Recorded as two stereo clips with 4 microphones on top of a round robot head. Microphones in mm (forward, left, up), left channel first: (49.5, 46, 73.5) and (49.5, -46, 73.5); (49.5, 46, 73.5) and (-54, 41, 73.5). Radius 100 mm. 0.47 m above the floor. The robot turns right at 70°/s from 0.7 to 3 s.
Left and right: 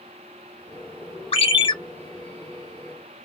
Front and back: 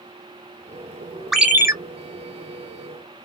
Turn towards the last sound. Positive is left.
turn(degrees=-150)